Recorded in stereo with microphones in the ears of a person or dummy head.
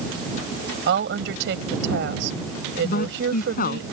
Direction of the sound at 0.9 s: 80° right.